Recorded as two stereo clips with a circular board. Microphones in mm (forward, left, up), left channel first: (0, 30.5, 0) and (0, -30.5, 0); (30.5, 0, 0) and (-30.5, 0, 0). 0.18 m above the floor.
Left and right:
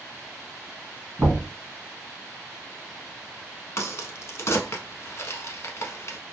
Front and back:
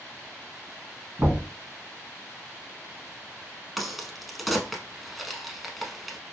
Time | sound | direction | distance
1.2 | knocking | 145° right | 1.4 m
3.8 | a crack | 90° left | 0.5 m